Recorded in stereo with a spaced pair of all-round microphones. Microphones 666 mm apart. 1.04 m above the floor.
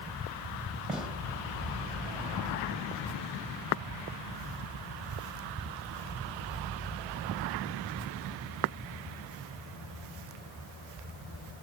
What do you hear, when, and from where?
0.9 s a gunshot: centre (ahead or behind), 2.5 m